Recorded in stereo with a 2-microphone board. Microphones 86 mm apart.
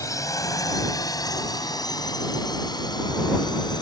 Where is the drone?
40° left (ahead or behind); by 3.8 s 55° left (ahead or behind).